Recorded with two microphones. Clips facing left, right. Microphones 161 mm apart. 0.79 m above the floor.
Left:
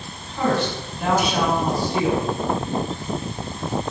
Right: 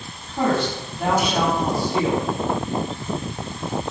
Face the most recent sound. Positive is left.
turn(degrees=-50)  # may be behind; listen again after turning